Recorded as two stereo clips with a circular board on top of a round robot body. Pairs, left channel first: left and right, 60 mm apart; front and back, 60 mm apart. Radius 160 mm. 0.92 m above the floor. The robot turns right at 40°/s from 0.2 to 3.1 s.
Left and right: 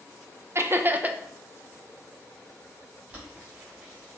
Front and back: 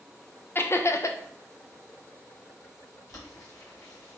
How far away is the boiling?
About 2.5 m.